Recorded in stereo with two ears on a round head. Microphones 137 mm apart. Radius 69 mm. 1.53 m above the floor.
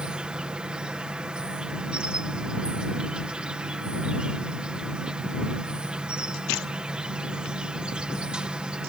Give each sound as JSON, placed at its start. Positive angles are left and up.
{"t": 0.0, "sound": "an insect", "side_deg": -5}